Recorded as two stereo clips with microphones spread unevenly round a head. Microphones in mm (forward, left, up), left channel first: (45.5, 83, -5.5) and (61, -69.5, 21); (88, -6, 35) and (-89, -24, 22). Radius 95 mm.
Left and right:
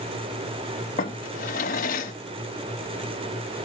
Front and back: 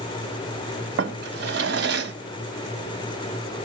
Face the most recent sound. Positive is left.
turn(degrees=150)